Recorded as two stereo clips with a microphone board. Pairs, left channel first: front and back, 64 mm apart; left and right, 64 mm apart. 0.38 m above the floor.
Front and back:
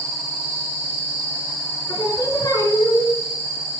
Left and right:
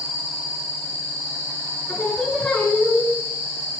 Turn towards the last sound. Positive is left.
turn(degrees=20)